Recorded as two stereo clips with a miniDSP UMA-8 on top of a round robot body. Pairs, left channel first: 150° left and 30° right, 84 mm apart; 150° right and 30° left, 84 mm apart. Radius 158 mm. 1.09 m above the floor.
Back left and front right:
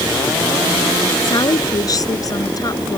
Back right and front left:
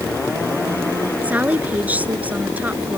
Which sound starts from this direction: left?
A woman speaking, at 1.2 s.